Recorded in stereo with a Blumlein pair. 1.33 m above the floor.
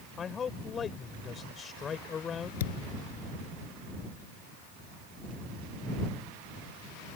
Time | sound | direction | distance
0.2 | a man speaking | 20° left | ?
2.6 | a thud | 60° left | ?